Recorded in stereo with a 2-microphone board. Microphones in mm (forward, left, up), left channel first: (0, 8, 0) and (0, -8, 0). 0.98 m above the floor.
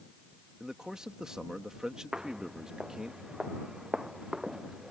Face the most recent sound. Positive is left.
turn(degrees=-30)  # may be behind; listen again after turning